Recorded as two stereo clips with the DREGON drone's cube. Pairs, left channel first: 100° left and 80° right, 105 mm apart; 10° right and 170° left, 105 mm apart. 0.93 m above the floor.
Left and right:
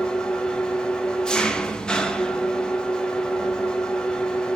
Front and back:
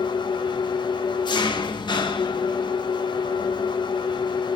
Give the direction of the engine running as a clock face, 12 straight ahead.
11 o'clock.